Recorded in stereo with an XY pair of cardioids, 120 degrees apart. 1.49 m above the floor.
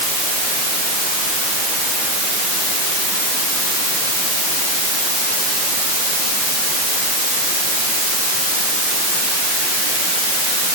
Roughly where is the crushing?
I don't hear crushing.